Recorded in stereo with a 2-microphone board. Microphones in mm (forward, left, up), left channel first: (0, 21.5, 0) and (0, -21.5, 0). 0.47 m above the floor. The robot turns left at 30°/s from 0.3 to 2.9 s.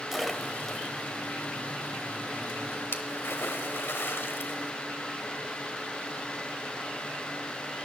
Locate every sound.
0.1 s a splash: 5° right (ahead or behind), 1.0 m; by 4.7 s 70° left (ahead or behind), 1.0 m